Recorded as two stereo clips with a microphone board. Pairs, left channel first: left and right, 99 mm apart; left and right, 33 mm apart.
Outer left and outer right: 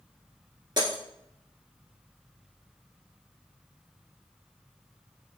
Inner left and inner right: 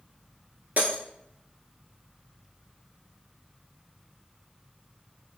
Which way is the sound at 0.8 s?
50° right (ahead or behind).